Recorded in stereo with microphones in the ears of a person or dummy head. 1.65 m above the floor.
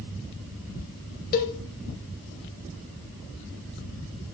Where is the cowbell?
45° left (ahead or behind), 1.2 m.